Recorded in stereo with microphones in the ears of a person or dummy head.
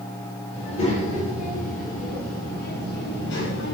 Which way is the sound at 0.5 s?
35° left (ahead or behind).